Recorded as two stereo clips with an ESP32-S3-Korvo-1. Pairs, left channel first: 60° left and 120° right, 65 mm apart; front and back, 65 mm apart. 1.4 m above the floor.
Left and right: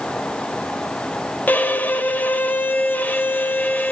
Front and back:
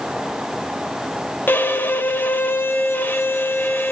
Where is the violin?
20° left, 1.3 m.